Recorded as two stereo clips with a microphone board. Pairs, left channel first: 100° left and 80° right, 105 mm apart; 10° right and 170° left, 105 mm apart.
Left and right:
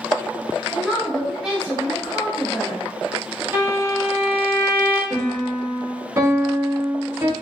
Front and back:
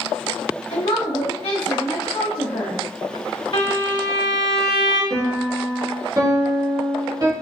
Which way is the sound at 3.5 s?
15° right.